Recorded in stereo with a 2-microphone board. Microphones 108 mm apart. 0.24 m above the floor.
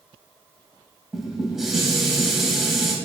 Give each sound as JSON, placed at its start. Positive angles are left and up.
{"t": 1.1, "sound": "dishes clattering", "side_deg": -5, "distance_m": 0.7}